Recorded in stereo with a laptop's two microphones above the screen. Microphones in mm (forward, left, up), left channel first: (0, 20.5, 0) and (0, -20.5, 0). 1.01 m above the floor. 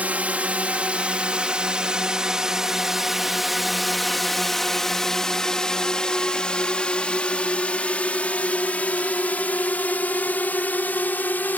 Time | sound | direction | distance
0.0 | a drone | 35° right (ahead or behind) | ?